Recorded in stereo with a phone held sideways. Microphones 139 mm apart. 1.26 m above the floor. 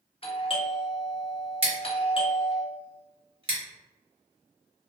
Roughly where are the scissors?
Right.